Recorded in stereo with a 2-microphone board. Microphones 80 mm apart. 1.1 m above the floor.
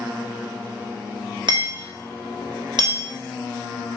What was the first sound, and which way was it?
Hammering, 60° right (ahead or behind).